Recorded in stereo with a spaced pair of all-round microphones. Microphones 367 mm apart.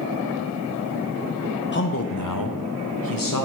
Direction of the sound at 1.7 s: 30° left (ahead or behind).